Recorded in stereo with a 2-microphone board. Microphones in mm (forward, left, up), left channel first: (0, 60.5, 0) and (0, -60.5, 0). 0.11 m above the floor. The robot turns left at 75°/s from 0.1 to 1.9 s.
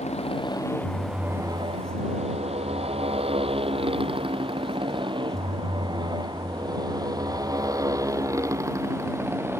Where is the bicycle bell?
No bicycle bell in this recording.